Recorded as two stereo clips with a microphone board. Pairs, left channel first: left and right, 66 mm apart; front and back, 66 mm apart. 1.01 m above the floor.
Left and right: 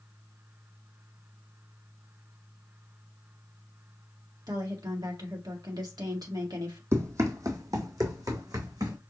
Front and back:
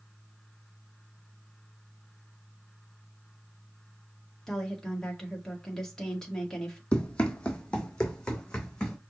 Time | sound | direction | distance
4.5 | a woman speaking | 80° right | 1.8 m
6.9 | running footsteps | 65° right | 1.5 m